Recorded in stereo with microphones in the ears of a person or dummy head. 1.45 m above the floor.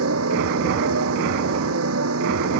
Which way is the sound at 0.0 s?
85° right.